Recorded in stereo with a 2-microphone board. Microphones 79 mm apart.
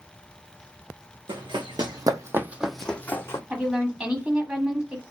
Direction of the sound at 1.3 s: 75° right (ahead or behind).